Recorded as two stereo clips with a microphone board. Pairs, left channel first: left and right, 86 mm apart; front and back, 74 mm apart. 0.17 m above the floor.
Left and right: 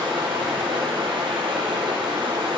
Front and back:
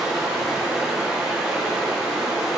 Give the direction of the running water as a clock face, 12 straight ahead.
3 o'clock.